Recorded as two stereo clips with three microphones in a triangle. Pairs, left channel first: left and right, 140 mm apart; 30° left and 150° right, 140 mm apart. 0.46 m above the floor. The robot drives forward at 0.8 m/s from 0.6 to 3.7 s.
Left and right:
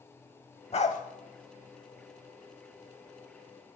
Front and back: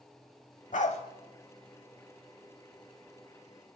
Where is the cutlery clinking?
I don't hear cutlery clinking.